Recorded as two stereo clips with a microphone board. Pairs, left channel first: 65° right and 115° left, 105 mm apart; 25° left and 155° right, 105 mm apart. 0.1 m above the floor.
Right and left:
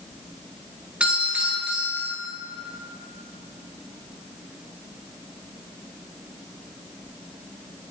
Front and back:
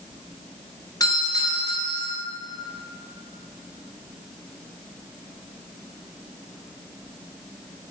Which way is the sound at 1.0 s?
40° left.